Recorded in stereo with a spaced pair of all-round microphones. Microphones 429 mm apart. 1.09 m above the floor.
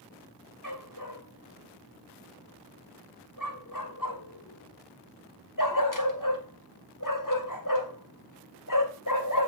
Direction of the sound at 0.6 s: 45° left (ahead or behind).